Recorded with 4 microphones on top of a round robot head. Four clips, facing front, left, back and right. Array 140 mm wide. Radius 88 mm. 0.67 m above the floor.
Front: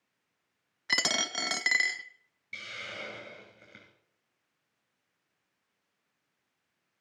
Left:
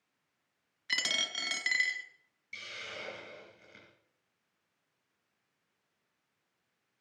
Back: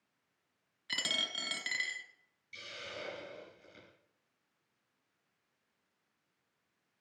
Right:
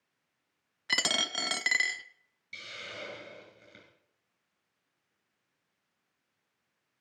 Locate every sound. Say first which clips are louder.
0.9 s a dropped coin: right 5 dB, front 9 dB; 40° right, 0.6 m
2.5 s a hiss: right 1 dB, front 3 dB; 20° right, 5.5 m